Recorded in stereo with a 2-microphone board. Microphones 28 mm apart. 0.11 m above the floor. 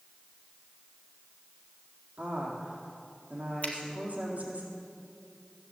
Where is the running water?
No running water in this recording.